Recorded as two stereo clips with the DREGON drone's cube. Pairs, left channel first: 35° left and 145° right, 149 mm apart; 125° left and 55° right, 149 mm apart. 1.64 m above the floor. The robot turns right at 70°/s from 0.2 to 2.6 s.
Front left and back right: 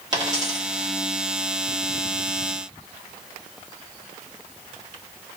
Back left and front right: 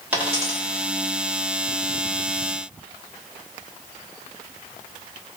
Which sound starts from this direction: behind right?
A dropped coin, at 0.1 s.